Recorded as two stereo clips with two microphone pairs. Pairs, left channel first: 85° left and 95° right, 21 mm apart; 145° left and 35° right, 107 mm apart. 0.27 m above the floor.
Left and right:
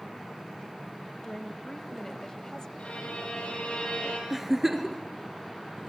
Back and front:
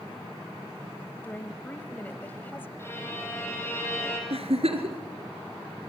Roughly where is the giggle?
Ahead.